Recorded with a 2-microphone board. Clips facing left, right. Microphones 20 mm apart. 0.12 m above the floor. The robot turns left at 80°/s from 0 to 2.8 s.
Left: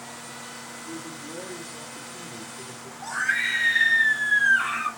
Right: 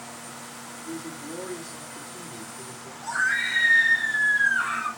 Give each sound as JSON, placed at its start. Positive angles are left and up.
{"t": 0.8, "sound": "a man speaking", "azimuth_deg": -105, "distance_m": 3.5}
{"t": 3.0, "sound": "a scream", "side_deg": 65, "distance_m": 3.0}